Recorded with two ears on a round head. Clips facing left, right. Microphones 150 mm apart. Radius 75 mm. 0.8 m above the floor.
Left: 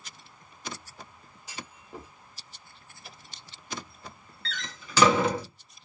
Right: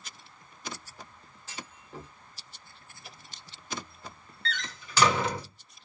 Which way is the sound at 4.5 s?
70° left (ahead or behind).